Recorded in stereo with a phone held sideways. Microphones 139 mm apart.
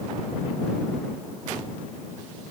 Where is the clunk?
I don't hear a clunk.